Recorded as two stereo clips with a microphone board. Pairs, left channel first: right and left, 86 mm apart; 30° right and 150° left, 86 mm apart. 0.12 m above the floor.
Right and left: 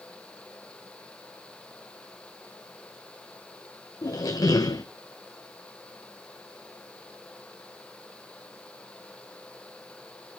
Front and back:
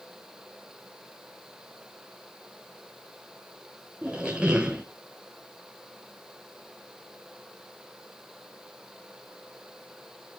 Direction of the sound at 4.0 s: 130° right.